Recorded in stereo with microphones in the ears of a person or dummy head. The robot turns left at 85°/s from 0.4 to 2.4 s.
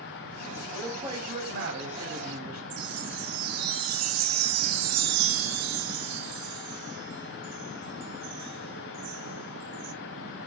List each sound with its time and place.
0.7 s a man speaking: 15° left, 8 m; by 2.6 s 130° right, 8 m
2.7 s a chime: 85° right, 1.7 m